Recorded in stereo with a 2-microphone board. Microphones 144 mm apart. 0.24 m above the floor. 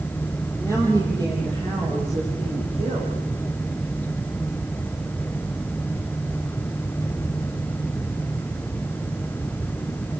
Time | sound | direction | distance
0.6 | a woman speaking | 20° right (ahead or behind) | 7 m